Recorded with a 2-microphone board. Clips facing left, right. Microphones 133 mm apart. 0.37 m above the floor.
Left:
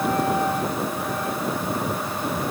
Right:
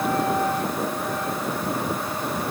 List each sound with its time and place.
Only background noise.